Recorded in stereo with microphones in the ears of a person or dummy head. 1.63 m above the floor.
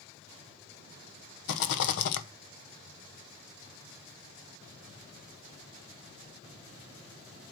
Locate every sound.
1.5 s a rattle: 65° left (ahead or behind), 0.9 m